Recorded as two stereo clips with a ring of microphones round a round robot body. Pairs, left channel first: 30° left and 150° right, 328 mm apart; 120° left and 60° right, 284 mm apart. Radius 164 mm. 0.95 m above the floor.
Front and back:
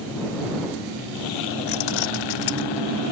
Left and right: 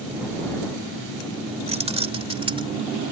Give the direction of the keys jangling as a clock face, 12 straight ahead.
12 o'clock.